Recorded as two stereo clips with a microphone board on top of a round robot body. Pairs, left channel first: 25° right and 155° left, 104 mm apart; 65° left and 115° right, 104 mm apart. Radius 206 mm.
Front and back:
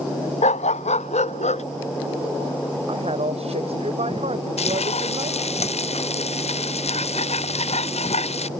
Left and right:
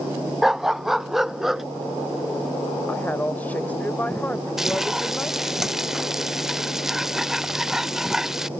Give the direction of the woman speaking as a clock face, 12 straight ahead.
7 o'clock.